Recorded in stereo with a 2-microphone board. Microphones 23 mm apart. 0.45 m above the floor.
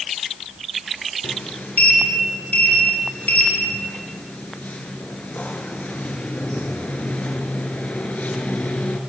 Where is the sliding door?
80° left, 5 m.